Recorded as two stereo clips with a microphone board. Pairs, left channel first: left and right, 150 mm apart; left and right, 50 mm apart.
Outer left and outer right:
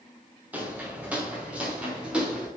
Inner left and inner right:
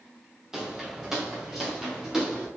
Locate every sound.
0.5 s footsteps: 10° right (ahead or behind), 2.5 m; by 2.5 s 5° right (ahead or behind), 3.5 m